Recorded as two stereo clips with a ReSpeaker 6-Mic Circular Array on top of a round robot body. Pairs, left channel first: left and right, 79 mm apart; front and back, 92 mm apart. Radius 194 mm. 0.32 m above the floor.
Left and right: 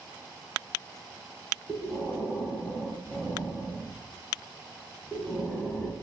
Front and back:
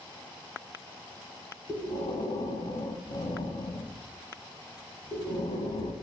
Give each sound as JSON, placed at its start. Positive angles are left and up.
{"t": 1.7, "sound": "breathing", "azimuth_deg": 10, "distance_m": 2.5}